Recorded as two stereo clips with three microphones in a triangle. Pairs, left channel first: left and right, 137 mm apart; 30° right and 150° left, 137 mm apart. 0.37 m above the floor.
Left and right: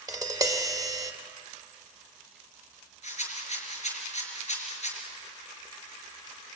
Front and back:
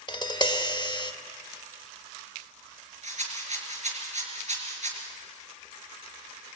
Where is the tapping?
50° right, 1.4 m.